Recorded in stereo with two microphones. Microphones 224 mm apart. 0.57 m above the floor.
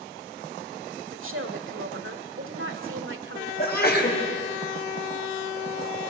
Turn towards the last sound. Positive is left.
turn(degrees=45)  # may be behind; listen again after turning